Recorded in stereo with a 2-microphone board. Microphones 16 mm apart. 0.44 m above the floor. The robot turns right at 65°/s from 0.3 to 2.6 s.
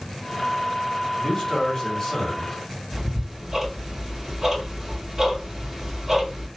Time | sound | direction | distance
1.2 | a man speaking | 90° left | 1.6 m
2.9 | ticking | 30° right (ahead or behind) | 1.4 m